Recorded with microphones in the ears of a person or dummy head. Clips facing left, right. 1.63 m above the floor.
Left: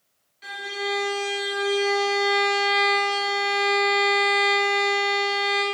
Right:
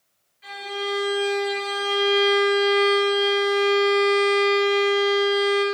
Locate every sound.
0.4 s a violin: 70° left (ahead or behind), 2.5 m